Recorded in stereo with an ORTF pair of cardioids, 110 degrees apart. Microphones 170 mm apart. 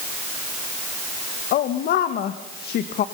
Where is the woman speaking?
70° left, 1.7 m.